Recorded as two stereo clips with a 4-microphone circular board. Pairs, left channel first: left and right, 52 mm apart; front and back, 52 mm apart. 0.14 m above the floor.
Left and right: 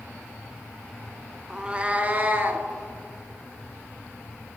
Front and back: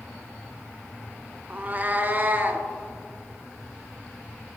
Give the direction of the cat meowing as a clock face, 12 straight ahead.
5 o'clock.